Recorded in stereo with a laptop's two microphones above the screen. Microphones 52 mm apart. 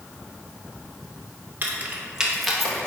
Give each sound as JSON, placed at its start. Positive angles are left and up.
{"t": 1.6, "sound": "keys jangling", "side_deg": -40, "distance_m": 0.9}